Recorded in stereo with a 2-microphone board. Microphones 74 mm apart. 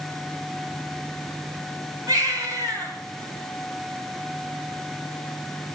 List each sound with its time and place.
2.1 s a baby crying: 60° right (ahead or behind), 6 m